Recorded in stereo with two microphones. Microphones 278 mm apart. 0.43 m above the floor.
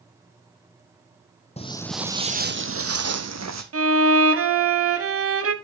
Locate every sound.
1.6 s footsteps: 25° left (ahead or behind), 0.6 m; by 3.6 s 70° right (ahead or behind), 1.1 m
3.7 s a violin: 55° right (ahead or behind), 0.8 m